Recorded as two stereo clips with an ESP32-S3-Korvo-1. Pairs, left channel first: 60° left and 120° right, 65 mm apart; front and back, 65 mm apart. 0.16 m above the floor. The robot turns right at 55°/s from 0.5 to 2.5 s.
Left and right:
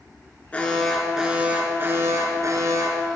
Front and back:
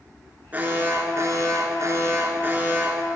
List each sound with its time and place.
0.5 s an alarm: 125° left, 2.5 m; by 3.1 s 125° right, 2.5 m